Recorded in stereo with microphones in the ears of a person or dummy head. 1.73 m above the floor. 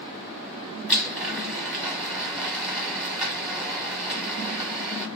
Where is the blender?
5° right (ahead or behind), 1.2 m.